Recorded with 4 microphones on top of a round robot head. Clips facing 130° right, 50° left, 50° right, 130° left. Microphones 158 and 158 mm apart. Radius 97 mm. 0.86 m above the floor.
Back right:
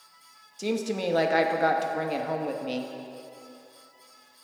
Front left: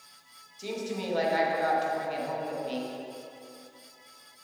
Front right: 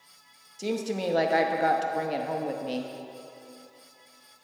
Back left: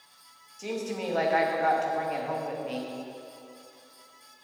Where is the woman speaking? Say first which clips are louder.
Back right 6 dB, front right 3 dB; 105° right, 0.9 m.